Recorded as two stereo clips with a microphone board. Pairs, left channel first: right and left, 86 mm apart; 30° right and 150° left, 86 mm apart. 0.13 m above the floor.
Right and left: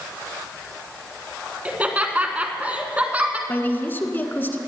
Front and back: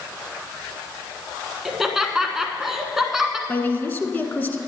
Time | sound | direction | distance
1.6 | laughter | 75° left | 1.1 m
3.5 | a woman speaking | 65° right | 1.3 m